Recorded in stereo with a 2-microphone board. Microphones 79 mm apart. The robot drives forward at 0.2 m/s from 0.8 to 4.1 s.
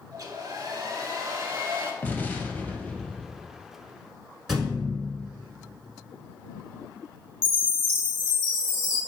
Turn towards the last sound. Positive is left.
turn(degrees=30)  # may be behind; listen again after turning